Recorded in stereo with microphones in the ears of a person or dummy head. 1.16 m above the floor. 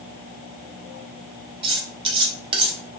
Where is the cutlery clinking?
30° right (ahead or behind), 0.7 m.